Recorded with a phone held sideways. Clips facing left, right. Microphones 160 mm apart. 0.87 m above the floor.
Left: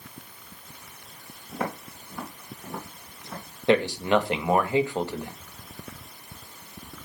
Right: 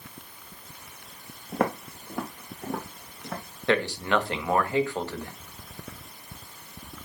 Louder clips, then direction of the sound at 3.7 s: Left 4 dB; 15° left (ahead or behind).